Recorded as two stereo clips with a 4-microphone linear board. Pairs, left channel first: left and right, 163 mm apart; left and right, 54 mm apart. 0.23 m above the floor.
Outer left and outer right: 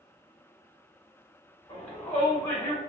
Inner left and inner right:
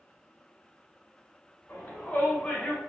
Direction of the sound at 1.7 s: 40° left (ahead or behind).